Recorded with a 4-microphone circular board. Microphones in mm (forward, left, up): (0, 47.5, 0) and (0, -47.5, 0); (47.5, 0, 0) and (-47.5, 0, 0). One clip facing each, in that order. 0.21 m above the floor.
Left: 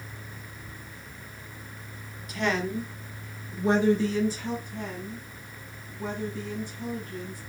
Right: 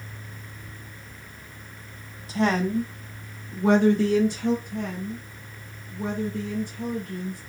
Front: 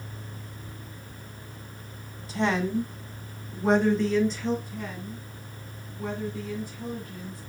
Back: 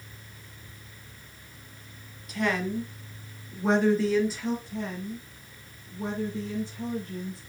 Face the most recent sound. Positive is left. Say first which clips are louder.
# right 5 dB, back 3 dB
turn(degrees=-120)